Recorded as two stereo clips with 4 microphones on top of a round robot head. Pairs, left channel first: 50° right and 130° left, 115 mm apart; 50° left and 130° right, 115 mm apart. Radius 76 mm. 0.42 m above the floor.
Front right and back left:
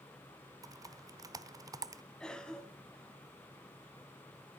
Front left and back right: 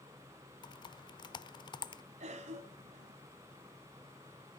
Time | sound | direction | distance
0.6 | typing on a keyboard | 85° left | 1.0 m
2.2 | a cough | 135° right | 3.5 m